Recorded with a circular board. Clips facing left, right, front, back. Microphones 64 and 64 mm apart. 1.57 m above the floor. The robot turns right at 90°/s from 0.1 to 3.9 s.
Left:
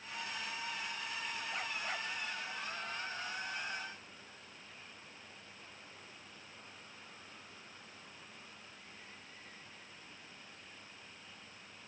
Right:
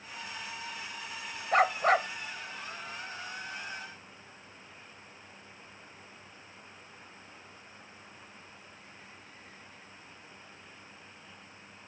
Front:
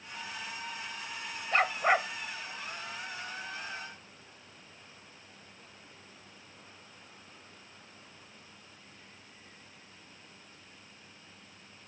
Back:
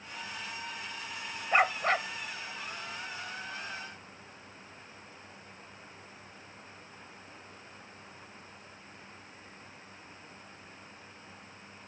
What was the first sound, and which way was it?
A dog barking, 110° right.